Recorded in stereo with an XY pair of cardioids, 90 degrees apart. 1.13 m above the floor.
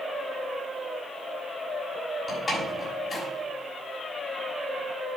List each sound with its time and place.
2.3 s a door slam: 25° left, 6.5 m